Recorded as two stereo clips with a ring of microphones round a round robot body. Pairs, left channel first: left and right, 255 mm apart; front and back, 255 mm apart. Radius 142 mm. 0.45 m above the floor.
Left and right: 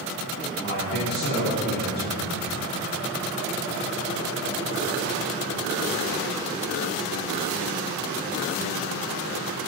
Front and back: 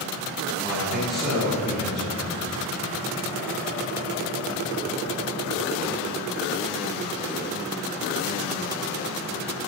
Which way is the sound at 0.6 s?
90° left.